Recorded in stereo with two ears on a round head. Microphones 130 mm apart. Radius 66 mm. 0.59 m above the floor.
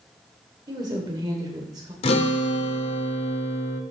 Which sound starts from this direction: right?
A woman speaking, at 0.7 s.